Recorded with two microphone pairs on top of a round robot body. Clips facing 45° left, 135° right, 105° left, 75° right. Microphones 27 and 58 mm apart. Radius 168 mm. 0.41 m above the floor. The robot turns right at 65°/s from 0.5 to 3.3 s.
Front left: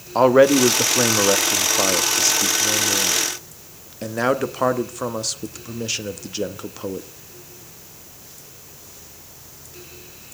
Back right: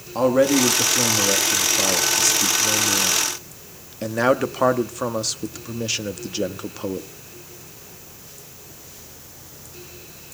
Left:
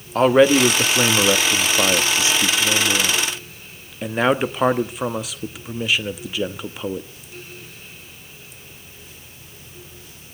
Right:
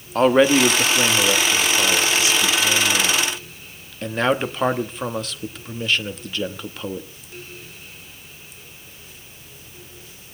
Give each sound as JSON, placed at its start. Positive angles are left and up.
{"t": 0.1, "sound": "a man speaking", "azimuth_deg": 5, "distance_m": 1.4}